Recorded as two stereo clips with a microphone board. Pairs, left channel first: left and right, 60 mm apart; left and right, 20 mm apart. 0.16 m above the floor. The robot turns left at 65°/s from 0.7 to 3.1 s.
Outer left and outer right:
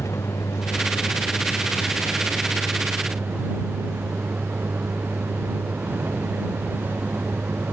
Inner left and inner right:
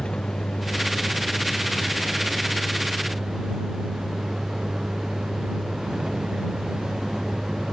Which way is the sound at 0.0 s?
120° left.